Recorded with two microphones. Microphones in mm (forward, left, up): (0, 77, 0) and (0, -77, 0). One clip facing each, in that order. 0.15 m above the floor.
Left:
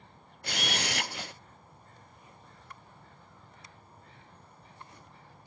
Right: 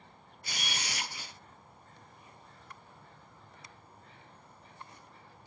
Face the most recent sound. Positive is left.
turn(degrees=70)  # may be behind; listen again after turning